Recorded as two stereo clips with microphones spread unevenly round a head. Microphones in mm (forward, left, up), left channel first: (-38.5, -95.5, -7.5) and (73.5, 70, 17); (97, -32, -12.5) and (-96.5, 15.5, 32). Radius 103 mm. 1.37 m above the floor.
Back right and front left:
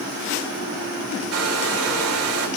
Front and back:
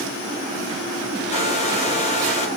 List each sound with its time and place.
1.3 s a hair dryer: 45° left, 2 m